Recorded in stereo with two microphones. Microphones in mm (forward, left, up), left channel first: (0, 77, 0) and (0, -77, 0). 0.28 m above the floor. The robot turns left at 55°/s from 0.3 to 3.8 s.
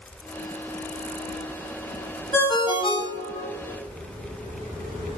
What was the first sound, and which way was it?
A ringtone, 160° left.